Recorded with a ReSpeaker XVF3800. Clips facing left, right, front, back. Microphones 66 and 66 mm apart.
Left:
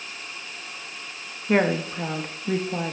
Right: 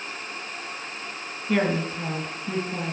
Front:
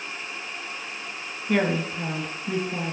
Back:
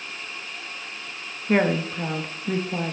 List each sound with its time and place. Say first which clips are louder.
1.5 s a woman speaking: left 2 dB, back 2 dB; 125° left, 0.9 m